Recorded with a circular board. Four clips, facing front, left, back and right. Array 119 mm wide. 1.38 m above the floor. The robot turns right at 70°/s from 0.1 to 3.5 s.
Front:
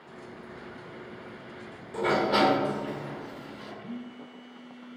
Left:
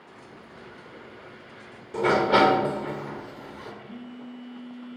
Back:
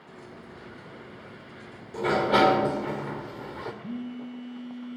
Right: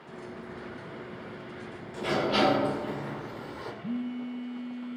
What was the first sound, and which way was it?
A sliding door, 80° left.